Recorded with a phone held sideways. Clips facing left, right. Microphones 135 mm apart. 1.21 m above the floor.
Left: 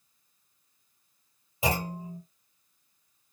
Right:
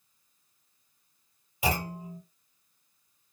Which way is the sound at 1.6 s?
25° left (ahead or behind).